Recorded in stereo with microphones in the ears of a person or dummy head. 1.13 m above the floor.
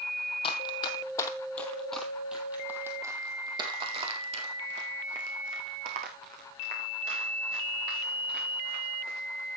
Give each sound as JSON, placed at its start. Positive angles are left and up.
{"t": 0.4, "sound": "running footsteps", "side_deg": 30, "distance_m": 2.0}